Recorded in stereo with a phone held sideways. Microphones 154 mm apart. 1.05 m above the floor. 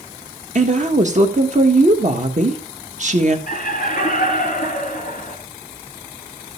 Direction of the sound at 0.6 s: 50° right (ahead or behind).